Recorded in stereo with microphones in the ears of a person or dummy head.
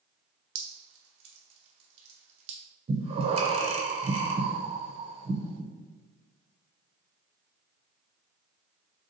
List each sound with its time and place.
0.6 s dripping: 35° right (ahead or behind), 1.1 m
2.9 s breathing: 35° right (ahead or behind), 0.5 m